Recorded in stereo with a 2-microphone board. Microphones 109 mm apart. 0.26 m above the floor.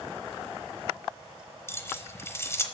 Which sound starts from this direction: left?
Keys jangling, at 1.7 s.